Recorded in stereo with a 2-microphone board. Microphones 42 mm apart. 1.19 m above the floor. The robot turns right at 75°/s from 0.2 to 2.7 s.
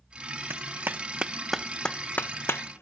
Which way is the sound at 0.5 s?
75° right (ahead or behind).